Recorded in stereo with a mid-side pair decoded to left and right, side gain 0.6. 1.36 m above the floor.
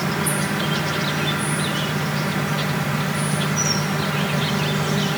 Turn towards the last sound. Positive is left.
turn(degrees=-10)